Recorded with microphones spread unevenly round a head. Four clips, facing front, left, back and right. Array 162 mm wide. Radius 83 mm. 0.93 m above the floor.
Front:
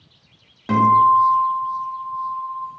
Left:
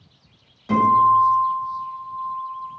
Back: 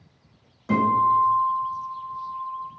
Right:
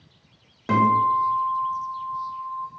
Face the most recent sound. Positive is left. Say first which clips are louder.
# left 4 dB, front 6 dB
turn(degrees=-50)